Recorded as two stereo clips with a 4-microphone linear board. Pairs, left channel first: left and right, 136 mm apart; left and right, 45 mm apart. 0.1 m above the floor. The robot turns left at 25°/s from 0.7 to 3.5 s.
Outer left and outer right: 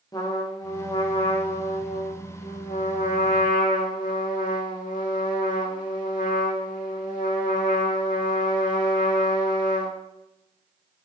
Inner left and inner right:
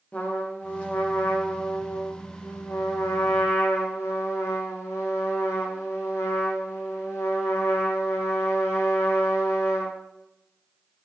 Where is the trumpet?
150° left, 4 m; by 10.0 s 80° left, 4 m.